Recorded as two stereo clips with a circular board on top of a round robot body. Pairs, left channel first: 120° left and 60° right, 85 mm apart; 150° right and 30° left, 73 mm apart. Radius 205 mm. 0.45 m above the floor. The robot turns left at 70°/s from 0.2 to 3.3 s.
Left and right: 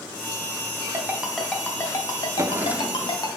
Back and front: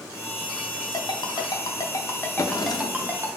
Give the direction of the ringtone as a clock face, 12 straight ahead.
4 o'clock.